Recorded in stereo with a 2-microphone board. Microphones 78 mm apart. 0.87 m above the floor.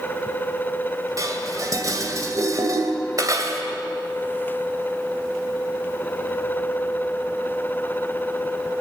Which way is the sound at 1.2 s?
45° right (ahead or behind).